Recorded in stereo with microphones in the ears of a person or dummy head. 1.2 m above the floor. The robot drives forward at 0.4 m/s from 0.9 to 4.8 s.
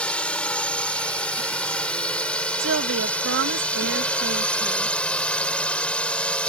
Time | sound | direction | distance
0.0 | a drone | 10° left (ahead or behind) | ?
2.6 | a woman speaking | 90° right | ?